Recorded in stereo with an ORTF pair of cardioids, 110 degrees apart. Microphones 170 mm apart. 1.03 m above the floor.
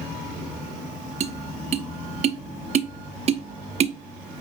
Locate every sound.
1.2 s tapping: 45° right, 0.8 m